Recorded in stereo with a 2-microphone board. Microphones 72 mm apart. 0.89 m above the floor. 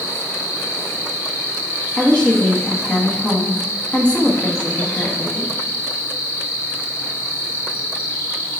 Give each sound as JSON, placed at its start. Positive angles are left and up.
{"t": 0.0, "sound": "an insect", "side_deg": 35, "distance_m": 1.4}
{"t": 2.0, "sound": "a woman speaking", "side_deg": 15, "distance_m": 1.4}